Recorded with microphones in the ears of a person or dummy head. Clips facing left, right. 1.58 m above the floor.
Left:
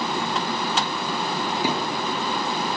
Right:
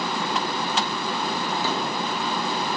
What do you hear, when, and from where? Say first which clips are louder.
1.6 s a thud: left 2 dB; 15° left (ahead or behind), 4.5 m